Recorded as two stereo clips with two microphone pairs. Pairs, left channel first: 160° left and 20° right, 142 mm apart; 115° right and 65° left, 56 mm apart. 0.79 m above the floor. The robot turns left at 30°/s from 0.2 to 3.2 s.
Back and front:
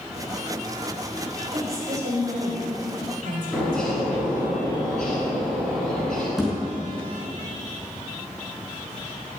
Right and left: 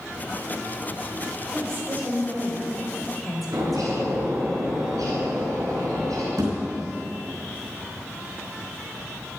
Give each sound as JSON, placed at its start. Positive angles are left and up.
{"t": 1.5, "sound": "a woman speaking", "azimuth_deg": 25, "distance_m": 4.5}
{"t": 3.5, "sound": "a bird", "azimuth_deg": 70, "distance_m": 6.5}
{"t": 6.4, "sound": "a thud", "azimuth_deg": 70, "distance_m": 5.0}